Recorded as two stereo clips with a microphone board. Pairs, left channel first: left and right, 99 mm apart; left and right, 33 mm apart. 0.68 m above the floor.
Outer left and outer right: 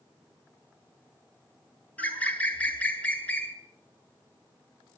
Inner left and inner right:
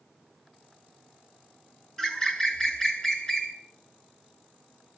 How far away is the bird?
About 3.5 m.